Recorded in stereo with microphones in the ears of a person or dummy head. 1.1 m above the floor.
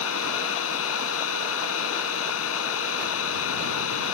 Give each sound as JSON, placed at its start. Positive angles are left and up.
{"t": 0.0, "sound": "a machine running", "side_deg": 75}